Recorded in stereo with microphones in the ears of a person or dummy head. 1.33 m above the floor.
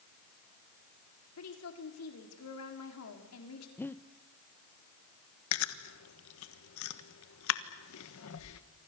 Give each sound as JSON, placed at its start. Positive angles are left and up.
{"t": 1.4, "sound": "a woman speaking", "side_deg": 85, "distance_m": 4.0}
{"t": 3.8, "sound": "breathing", "side_deg": 10, "distance_m": 0.6}
{"t": 5.5, "sound": "chewing", "side_deg": 70, "distance_m": 1.3}